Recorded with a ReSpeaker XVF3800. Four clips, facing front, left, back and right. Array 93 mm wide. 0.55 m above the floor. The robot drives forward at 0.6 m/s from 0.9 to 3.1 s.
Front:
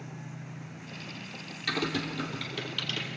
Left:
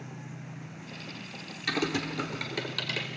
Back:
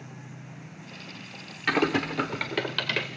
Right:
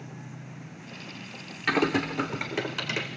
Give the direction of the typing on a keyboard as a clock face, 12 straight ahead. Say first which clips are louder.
Right 6 dB, back 7 dB; 5 o'clock.